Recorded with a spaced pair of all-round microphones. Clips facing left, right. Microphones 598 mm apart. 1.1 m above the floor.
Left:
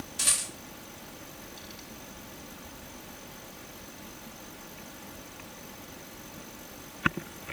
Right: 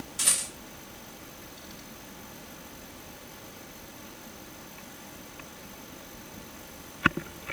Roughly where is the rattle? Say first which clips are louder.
Right 1 dB; right.